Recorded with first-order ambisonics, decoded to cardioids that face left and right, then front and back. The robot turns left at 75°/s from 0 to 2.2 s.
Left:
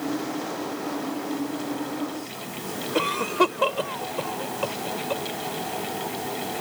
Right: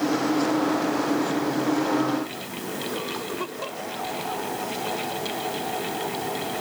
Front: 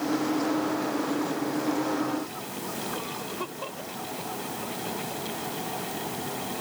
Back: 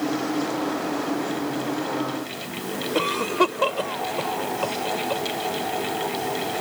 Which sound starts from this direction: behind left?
A cough, at 3.0 s.